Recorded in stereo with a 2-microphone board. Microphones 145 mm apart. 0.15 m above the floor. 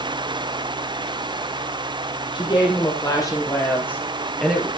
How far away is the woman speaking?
About 4.5 m.